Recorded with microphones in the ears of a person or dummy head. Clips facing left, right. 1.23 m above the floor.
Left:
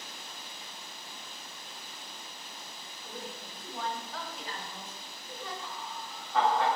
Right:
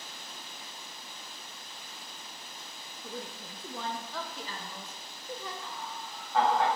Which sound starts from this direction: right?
A woman speaking, at 3.0 s.